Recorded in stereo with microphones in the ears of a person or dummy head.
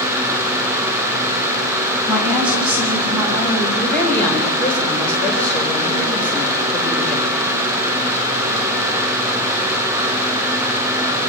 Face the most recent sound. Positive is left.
turn(degrees=10)  # may be behind; listen again after turning